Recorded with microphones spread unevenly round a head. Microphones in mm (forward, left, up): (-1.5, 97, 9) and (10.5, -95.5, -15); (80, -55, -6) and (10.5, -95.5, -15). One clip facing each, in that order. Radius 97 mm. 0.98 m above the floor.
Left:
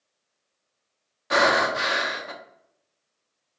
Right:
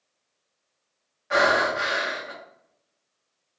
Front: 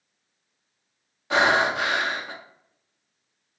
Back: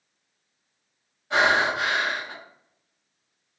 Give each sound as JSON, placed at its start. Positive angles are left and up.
{"t": 1.3, "sound": "breathing", "azimuth_deg": 60, "distance_m": 0.7}